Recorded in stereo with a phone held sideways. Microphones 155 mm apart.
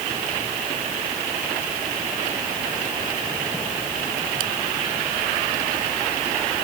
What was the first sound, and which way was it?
Only background noise.